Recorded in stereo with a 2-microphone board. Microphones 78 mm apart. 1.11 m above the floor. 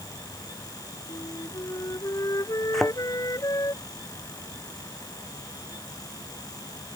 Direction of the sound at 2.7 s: Centre (ahead or behind).